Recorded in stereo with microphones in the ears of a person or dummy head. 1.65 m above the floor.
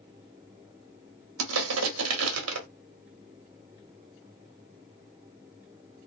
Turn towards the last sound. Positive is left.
turn(degrees=-85)